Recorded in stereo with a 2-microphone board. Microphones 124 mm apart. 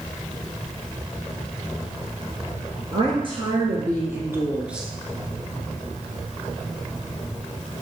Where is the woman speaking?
45° right (ahead or behind), 1.8 m; by 4.9 s 5° right (ahead or behind), 1.5 m.